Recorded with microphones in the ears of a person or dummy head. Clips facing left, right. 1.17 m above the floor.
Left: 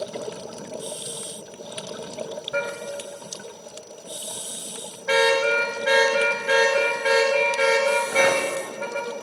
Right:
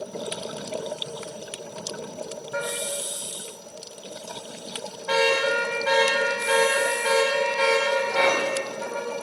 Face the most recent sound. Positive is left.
turn(degrees=35)  # may be behind; listen again after turning